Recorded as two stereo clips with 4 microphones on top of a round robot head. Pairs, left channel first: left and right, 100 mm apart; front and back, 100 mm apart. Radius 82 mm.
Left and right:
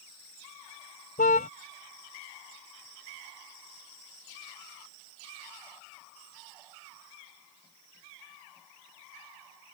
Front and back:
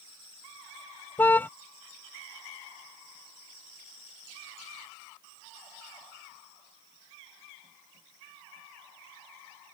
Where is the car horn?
70° left.